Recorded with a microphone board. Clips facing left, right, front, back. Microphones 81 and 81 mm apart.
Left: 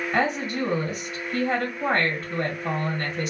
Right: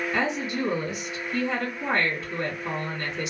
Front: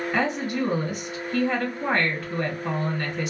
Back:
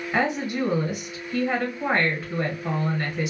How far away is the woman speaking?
About 1.7 m.